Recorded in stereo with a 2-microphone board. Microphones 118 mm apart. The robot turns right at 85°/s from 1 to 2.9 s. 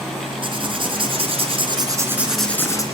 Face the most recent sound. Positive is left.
turn(degrees=45)